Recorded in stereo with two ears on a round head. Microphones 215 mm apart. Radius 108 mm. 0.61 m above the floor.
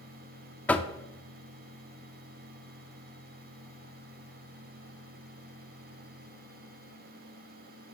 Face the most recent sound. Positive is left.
turn(degrees=5)  # may be behind; listen again after turning